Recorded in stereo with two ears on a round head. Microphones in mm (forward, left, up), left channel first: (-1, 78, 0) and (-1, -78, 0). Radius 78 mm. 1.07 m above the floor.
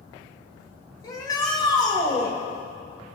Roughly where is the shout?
Left.